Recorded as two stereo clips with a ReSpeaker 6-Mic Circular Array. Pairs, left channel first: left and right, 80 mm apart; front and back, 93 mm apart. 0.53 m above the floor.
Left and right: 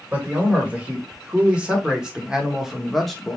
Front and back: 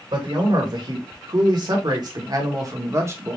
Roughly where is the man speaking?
Behind.